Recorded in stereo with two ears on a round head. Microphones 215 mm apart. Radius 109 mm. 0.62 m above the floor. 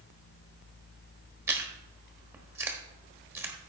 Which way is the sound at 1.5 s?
10° right (ahead or behind).